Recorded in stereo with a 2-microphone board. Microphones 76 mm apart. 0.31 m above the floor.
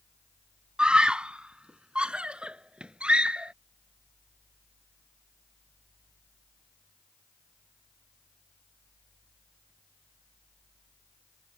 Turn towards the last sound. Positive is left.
turn(degrees=-10)  # may be behind; listen again after turning